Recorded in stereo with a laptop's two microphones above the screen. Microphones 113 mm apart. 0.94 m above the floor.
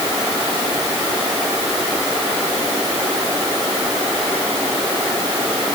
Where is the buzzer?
I don't hear a buzzer.